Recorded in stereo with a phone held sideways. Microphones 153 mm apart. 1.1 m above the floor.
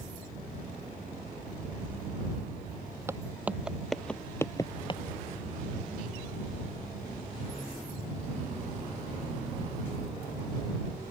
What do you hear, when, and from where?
3.1 s footsteps: 15° right (ahead or behind); by 5.0 s 35° left (ahead or behind)